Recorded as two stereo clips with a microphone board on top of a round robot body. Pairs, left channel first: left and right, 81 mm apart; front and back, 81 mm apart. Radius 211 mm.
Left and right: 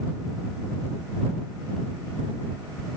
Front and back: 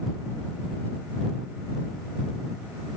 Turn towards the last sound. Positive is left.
No sound to turn to.